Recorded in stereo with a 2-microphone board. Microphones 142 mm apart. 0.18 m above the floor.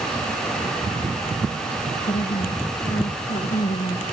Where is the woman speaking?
75° left (ahead or behind), 5 m.